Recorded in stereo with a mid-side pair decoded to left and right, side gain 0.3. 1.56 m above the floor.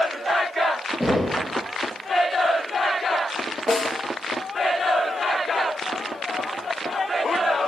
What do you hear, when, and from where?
1.0 s knocking: 5° left, 1.7 m
3.7 s a snare drum: 20° left, 1.5 m